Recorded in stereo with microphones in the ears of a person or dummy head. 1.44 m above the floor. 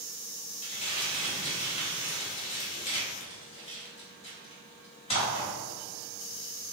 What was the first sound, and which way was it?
Crumpling, 30° left (ahead or behind).